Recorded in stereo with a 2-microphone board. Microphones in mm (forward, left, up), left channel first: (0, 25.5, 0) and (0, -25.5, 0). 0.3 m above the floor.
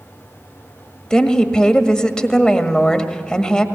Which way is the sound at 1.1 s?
15° left (ahead or behind).